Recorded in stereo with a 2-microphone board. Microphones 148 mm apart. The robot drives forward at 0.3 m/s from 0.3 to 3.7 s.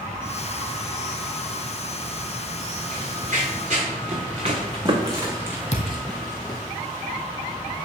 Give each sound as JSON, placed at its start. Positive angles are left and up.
{"t": 2.9, "sound": "running footsteps", "side_deg": -60, "distance_m": 3.0}
{"t": 5.7, "sound": "a thud", "side_deg": 50, "distance_m": 1.4}